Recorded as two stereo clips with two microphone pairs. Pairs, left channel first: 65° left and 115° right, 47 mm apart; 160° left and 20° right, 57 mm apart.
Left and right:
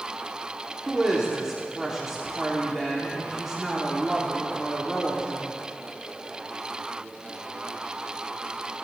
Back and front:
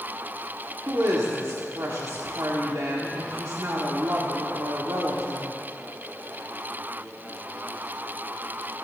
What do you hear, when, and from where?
0.9 s a woman speaking: 35° right, 1.1 m